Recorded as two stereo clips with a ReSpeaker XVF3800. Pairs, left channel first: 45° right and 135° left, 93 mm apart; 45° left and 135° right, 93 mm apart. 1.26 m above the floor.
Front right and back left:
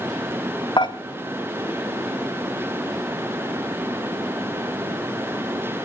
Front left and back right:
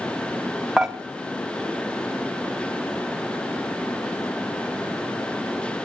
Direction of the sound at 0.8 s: 50° right.